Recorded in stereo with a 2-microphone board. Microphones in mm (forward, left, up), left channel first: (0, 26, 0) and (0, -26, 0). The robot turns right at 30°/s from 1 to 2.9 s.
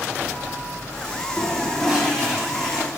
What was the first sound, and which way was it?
A toilet flushing, centre (ahead or behind).